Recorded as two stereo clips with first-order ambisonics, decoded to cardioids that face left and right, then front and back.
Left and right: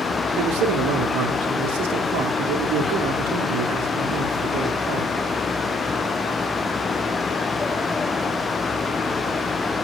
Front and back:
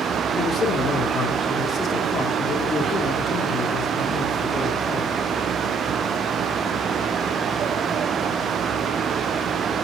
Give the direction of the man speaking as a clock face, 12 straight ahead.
2 o'clock.